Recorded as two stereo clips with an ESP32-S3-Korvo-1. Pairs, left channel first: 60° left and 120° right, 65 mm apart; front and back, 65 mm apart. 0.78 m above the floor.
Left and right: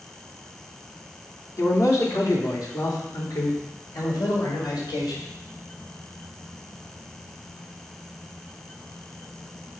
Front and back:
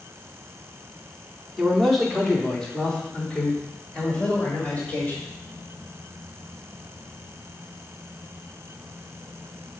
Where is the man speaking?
95° left, 1.8 m; by 5.2 s 65° left, 4 m.